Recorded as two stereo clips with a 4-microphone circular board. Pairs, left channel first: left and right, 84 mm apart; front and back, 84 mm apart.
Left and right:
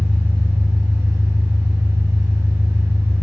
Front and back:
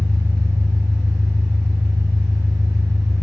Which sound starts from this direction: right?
An engine running, at 0.0 s.